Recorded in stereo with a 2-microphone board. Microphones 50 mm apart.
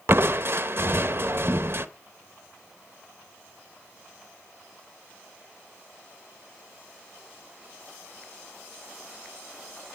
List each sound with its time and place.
0.1 s crushing: 50° right (ahead or behind), 0.6 m